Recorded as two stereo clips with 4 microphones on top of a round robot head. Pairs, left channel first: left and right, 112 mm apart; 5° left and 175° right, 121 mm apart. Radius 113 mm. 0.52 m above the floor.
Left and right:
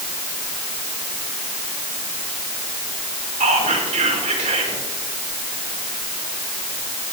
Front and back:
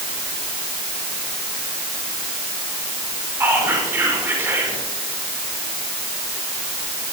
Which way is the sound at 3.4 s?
100° right.